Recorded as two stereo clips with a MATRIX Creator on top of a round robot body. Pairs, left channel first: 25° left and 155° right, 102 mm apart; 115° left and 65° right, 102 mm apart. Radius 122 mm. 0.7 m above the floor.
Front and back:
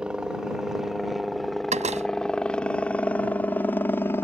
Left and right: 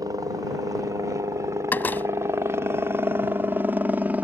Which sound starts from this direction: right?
A helicopter, at 0.0 s.